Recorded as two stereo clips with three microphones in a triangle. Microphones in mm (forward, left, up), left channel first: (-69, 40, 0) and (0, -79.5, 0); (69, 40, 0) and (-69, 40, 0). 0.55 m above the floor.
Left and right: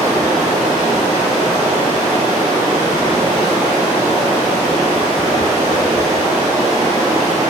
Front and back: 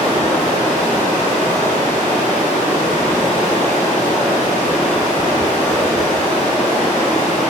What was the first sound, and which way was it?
Running water, 70° right.